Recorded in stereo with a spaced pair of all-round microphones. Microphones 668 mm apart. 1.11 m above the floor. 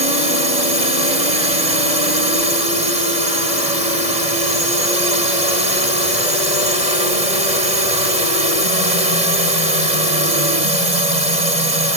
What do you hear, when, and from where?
0.0 s a drone: 70° right (ahead or behind)